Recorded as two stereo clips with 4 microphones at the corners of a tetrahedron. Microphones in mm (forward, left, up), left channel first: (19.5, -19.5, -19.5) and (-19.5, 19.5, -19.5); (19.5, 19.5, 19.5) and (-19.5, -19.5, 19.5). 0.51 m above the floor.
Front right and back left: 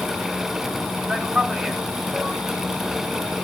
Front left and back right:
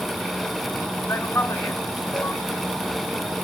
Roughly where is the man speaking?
Left.